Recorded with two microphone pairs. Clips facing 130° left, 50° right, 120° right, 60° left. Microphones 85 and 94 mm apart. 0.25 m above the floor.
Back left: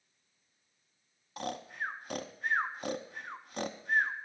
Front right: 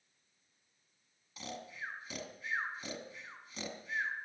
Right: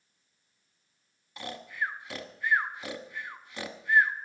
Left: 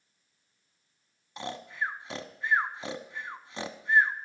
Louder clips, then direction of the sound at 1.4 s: Back left 7 dB, left 1 dB; 115° left.